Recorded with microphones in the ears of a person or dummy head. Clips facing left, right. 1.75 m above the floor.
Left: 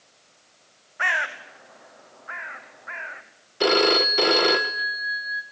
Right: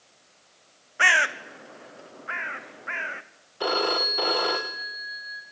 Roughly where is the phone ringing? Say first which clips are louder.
Left 7 dB; left.